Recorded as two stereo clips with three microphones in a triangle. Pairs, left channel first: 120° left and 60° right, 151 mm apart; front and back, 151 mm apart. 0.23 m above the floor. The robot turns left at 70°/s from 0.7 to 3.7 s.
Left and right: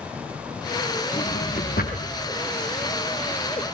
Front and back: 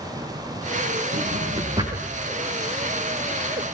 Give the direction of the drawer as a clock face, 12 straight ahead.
6 o'clock.